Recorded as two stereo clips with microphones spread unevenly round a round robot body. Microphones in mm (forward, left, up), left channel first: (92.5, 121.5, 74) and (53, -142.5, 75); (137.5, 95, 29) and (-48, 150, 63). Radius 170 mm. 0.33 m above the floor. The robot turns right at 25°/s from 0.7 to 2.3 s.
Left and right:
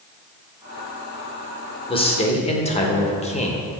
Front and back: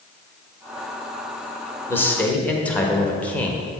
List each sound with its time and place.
1.9 s a man speaking: 30° left, 1.2 m; by 3.7 s 40° left, 1.2 m